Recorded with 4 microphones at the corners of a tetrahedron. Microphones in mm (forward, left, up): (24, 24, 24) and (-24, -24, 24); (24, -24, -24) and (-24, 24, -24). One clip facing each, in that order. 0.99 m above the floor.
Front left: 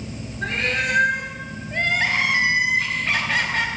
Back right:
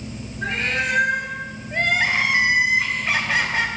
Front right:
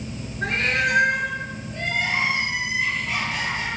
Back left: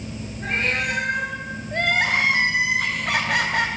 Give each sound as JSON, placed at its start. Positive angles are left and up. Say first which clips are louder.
{"t": 0.4, "sound": "a cat meowing", "louder": "even, front right 2 dB", "azimuth_deg": -45, "distance_m": 4.5}
{"t": 1.7, "sound": "crying", "louder": "back right 1 dB, back left 4 dB", "azimuth_deg": 150, "distance_m": 2.0}